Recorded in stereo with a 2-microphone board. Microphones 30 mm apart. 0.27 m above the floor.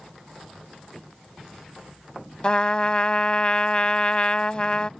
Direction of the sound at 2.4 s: 30° left (ahead or behind).